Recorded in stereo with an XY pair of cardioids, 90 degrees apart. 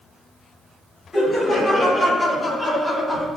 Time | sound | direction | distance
1.1 | laughter | 30° left | 5 m